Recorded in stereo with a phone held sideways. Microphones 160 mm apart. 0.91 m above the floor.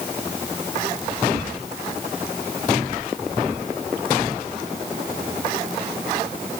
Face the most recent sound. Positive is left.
No sound to turn to.